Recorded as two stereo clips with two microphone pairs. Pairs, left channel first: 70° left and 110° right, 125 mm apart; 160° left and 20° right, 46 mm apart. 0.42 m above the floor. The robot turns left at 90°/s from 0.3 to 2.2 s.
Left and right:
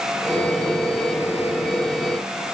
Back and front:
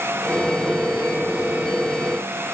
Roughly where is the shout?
No shout in this recording.